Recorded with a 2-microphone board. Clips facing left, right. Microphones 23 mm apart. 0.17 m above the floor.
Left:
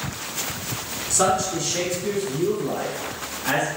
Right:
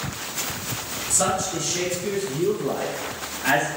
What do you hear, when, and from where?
1.1 s a man speaking: 30° left (ahead or behind), 1.1 m; by 3.7 s 35° right (ahead or behind), 1.3 m